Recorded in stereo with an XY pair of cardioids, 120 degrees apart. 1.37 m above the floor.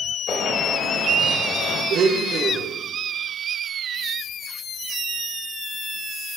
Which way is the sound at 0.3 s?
35° left.